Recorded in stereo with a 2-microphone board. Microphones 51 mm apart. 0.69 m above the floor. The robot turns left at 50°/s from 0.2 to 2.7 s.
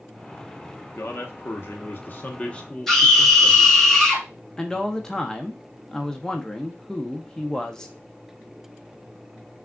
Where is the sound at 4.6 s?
15° left (ahead or behind), 0.7 m.